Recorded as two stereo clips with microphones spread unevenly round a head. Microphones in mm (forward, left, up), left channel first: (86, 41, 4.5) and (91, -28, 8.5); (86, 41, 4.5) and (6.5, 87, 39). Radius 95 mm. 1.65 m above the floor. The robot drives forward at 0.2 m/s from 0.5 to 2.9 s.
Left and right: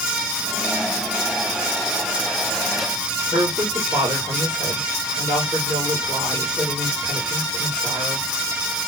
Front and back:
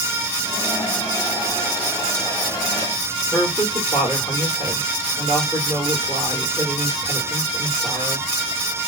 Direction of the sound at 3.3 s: 135° right.